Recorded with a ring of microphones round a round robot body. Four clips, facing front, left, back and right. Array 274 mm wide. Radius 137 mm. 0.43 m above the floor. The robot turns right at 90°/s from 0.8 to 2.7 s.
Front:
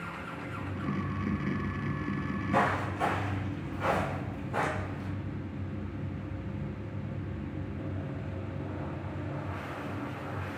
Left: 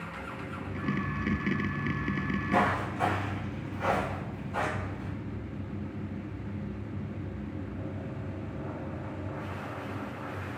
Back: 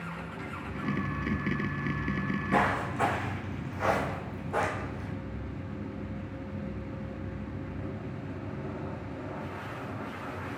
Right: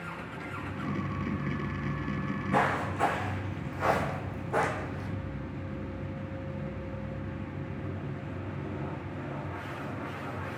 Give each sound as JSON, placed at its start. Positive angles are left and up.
{"t": 2.1, "sound": "footsteps", "azimuth_deg": 145, "distance_m": 2.0}